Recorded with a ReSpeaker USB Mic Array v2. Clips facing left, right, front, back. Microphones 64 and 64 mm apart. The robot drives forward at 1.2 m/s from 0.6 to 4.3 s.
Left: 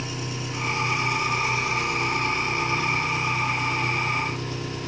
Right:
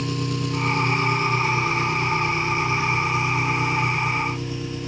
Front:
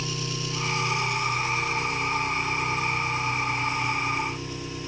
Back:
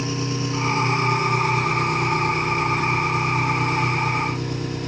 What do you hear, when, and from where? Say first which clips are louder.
0.0 s an engine running: right 6 dB, back 7 dB; 120° right, 1.9 m; by 4.9 s 165° right, 5.5 m